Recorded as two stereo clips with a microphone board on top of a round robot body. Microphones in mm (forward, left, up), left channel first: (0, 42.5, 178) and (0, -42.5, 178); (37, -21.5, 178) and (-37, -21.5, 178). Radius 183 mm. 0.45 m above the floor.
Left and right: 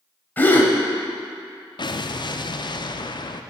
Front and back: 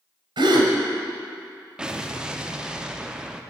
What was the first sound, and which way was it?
A gasp, 160° left.